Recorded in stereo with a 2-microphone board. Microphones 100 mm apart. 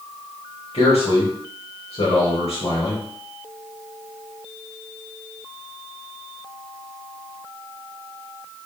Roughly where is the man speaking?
Left.